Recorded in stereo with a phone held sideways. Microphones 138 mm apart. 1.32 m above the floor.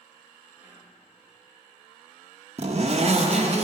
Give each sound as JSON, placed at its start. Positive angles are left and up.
{"t": 0.6, "sound": "whispering", "side_deg": -20, "distance_m": 1.7}
{"t": 2.6, "sound": "a zipper", "side_deg": -50, "distance_m": 0.8}